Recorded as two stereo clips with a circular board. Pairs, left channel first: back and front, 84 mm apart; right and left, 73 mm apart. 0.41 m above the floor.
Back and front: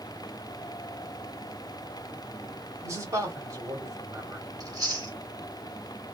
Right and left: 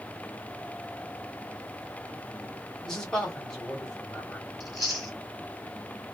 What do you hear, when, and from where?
2.8 s a man speaking: 15° right, 1.3 m
4.6 s chewing: 5° left, 1.6 m